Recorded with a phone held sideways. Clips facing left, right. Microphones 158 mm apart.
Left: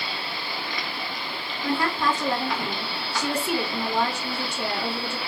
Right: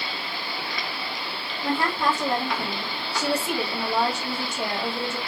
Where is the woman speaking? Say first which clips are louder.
Even; 20° right (ahead or behind), 1.2 m.